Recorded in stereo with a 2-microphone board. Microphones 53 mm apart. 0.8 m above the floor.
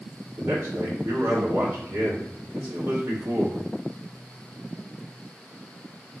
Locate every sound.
0.4 s a man speaking: 70° right (ahead or behind), 1.7 m